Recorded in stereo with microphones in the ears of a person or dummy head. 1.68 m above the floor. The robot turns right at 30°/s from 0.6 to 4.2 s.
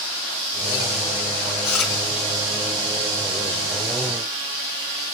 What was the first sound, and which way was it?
Chewing, centre (ahead or behind).